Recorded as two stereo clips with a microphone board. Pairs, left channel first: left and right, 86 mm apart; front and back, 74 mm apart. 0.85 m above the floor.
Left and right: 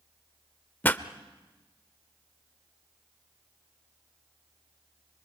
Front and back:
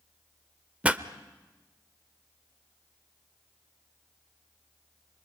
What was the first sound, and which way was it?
A pop, 135° left.